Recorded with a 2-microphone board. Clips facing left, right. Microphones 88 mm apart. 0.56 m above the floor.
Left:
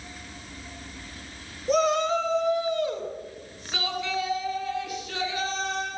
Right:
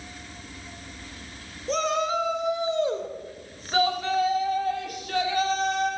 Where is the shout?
5° left (ahead or behind), 2 m; by 5.9 s 55° right (ahead or behind), 6 m.